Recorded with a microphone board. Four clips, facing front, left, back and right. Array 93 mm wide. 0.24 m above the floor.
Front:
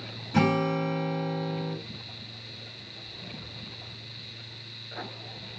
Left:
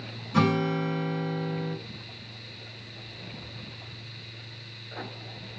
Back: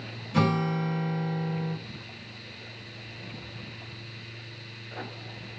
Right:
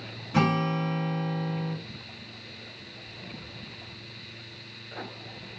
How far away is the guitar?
About 1.9 m.